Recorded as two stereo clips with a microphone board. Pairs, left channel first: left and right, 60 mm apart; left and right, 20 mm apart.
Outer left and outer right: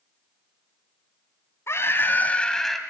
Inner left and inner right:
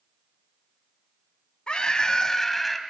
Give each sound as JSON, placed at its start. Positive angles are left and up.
{"t": 1.7, "sound": "a scream", "side_deg": 50, "distance_m": 1.8}